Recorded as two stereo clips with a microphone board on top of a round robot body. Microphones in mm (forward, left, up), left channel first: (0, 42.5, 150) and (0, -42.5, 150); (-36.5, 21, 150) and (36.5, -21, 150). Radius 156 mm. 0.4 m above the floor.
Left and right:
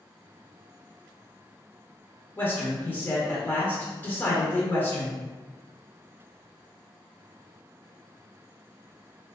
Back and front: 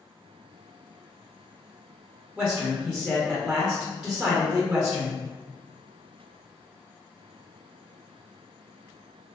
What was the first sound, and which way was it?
A man speaking, 50° left.